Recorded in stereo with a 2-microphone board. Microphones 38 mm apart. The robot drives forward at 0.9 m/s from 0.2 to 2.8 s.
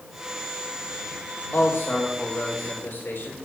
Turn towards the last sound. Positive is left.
turn(degrees=70)  # may be behind; listen again after turning